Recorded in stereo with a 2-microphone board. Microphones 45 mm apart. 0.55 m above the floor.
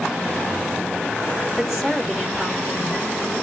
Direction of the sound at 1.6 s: 10° right (ahead or behind).